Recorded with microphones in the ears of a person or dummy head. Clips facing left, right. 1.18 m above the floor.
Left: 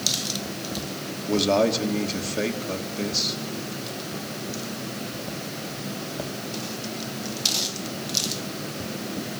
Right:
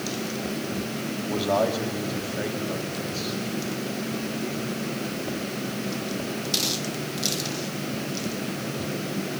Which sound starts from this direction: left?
A man speaking, at 1.3 s.